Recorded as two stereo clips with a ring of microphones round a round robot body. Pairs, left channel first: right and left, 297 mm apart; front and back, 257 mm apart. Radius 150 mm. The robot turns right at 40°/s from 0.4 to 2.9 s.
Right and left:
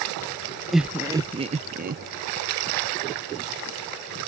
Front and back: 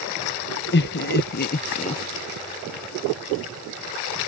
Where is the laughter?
Straight ahead; by 2.0 s 55° left.